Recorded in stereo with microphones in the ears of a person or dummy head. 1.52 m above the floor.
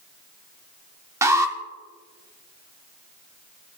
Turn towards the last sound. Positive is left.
turn(degrees=-15)  # may be behind; listen again after turning